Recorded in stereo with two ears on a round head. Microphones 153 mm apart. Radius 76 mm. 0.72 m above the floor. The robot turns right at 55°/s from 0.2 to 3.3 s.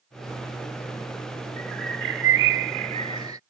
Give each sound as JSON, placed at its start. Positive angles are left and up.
{"t": 1.6, "sound": "a bird", "azimuth_deg": -120}